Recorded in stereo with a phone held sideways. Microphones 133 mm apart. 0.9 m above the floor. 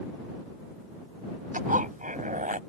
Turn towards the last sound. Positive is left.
turn(degrees=-75)  # may be behind; listen again after turning